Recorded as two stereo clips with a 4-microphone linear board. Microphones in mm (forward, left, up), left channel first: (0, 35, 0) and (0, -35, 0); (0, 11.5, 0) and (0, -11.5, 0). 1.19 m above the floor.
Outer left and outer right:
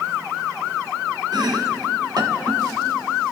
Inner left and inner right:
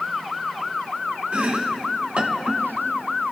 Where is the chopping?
70° right (ahead or behind), 1.4 m.